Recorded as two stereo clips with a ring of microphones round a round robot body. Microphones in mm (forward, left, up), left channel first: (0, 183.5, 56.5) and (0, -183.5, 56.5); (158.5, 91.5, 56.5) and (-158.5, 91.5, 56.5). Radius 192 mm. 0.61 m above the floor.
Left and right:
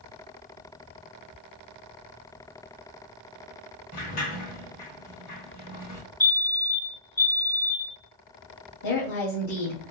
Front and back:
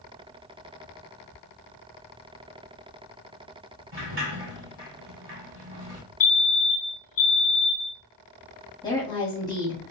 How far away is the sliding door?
About 1.8 m.